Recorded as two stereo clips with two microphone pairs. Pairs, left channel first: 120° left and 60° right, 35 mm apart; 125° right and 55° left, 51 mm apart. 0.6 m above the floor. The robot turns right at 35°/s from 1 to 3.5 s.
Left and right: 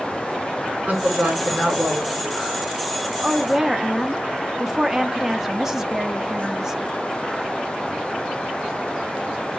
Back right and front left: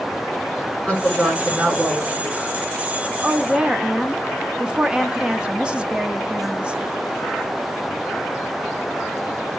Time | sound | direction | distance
0.9 | a woman speaking | 65° right | 7.5 m
3.2 | a woman speaking | 5° right | 1.0 m